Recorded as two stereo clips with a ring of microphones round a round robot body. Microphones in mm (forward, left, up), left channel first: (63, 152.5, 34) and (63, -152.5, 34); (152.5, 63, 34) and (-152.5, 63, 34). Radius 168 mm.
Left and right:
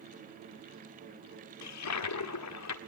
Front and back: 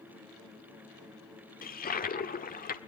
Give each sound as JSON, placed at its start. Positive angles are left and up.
{"t": 1.6, "sound": "a toilet flushing", "azimuth_deg": 60, "distance_m": 1.6}